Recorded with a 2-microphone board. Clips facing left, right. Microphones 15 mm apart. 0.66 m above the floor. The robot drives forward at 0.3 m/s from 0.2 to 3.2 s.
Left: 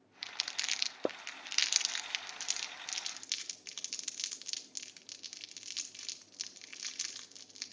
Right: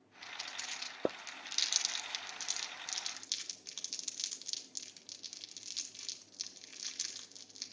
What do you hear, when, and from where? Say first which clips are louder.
0.2 s crumpling: left 6 dB; 60° left (ahead or behind), 0.6 m; by 7.7 s 45° left (ahead or behind), 0.8 m